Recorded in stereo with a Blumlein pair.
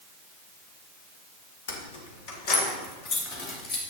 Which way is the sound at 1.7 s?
55° left.